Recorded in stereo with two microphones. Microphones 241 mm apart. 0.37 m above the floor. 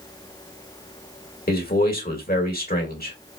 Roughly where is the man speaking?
Left.